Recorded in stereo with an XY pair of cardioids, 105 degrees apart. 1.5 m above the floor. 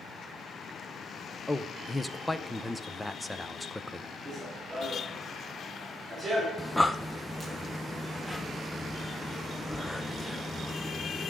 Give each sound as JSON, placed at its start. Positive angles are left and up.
{"t": 1.5, "sound": "a man speaking", "azimuth_deg": 10, "distance_m": 0.9}
{"t": 4.2, "sound": "running footsteps", "azimuth_deg": -35, "distance_m": 7.0}
{"t": 6.6, "sound": "breathing", "azimuth_deg": 10, "distance_m": 0.8}